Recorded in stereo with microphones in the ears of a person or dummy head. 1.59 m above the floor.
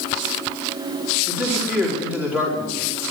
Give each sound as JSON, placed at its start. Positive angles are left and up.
{"t": 1.3, "sound": "a man speaking", "side_deg": -10, "distance_m": 4.0}